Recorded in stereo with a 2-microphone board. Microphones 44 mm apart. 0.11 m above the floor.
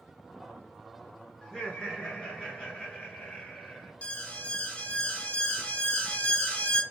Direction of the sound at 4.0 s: 25° left (ahead or behind).